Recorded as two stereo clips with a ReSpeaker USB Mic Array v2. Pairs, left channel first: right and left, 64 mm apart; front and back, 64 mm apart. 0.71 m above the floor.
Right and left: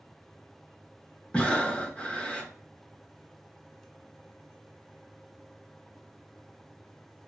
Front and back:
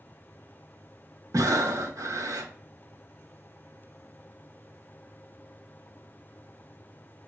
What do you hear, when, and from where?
1.3 s breathing: 160° right, 0.7 m